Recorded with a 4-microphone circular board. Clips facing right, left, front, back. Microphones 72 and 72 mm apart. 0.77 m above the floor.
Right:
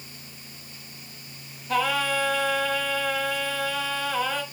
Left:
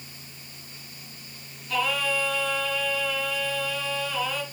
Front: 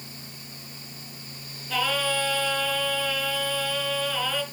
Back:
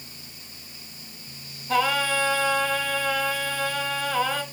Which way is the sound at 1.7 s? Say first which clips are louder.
Right 2 dB, back 4 dB; 145° right.